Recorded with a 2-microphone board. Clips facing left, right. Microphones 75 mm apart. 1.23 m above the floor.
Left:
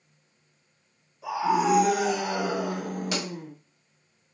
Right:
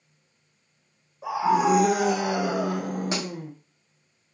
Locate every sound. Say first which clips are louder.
1.2 s a scream: right 2 dB; 40° right (ahead or behind), 1.3 m; by 3.5 s 70° right (ahead or behind), 1.2 m
3.1 s a pop: even; 30° right (ahead or behind), 1.2 m